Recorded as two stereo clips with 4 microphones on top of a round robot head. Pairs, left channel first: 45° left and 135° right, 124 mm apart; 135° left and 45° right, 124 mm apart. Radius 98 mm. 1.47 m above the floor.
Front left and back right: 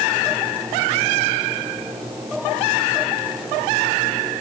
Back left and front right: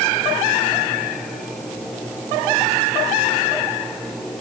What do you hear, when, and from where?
Only background noise.